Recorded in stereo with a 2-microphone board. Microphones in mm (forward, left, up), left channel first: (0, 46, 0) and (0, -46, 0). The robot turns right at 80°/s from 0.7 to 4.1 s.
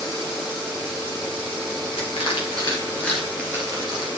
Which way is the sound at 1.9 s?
75° left (ahead or behind).